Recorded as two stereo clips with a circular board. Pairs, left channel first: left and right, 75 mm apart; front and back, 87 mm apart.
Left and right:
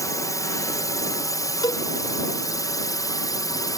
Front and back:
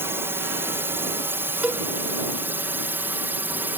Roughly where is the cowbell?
Left.